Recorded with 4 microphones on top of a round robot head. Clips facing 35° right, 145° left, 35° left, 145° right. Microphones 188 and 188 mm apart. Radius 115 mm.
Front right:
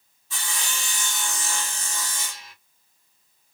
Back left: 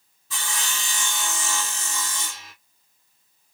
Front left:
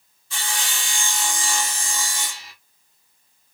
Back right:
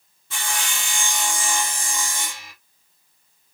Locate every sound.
0.3 s sawing: 170° left, 1.6 m